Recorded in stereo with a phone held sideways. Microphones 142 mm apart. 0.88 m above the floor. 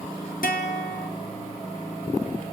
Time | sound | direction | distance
0.4 | a guitar | 75° left (ahead or behind) | 1.9 m